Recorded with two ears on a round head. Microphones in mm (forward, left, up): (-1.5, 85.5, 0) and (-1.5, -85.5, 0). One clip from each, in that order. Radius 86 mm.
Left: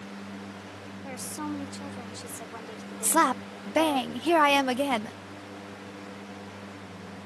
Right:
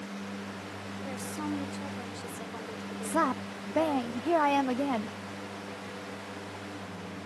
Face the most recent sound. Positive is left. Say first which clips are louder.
# left 5 dB
turn(degrees=65)  # may be behind; listen again after turning